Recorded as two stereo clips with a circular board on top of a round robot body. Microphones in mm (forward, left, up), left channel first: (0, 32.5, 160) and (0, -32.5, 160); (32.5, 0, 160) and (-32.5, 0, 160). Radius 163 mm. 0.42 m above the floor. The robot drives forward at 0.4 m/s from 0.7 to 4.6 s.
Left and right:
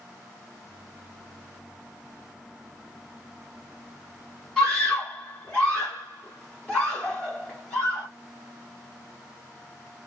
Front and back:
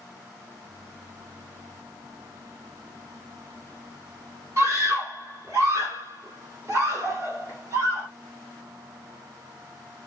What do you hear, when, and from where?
4.6 s a scream: 165° left, 2.0 m